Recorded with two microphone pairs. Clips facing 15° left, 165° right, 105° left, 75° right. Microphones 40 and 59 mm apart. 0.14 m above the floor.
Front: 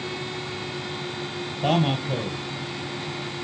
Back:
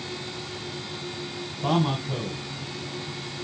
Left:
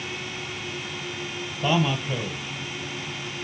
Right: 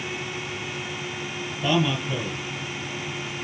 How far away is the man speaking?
About 4 m.